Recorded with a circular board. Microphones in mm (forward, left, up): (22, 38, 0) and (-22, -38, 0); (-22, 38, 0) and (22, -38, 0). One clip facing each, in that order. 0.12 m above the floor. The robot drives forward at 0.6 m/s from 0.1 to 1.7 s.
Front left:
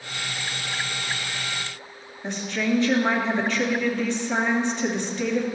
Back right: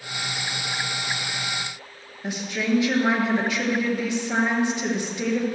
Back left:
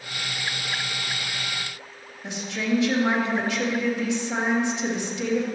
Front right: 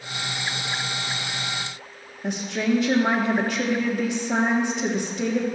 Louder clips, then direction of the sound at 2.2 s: Even, front right 3 dB; 40° right.